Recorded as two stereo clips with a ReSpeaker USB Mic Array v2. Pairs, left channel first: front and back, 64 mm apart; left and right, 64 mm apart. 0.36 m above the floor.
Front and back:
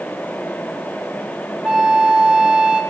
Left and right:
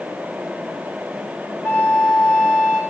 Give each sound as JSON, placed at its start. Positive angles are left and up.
{"t": 1.6, "sound": "a flute", "azimuth_deg": 125, "distance_m": 1.0}